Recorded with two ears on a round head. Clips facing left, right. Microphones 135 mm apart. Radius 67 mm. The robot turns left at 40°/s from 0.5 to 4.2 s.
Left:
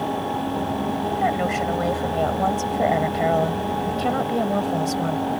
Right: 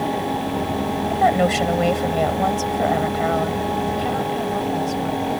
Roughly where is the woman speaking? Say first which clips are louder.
Right 7 dB; behind right.